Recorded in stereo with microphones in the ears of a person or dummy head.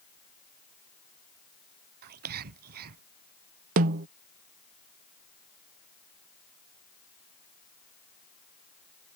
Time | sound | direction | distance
2.0 | whispering | 50° right (ahead or behind) | ?
3.8 | a snare drum | 40° right (ahead or behind) | ?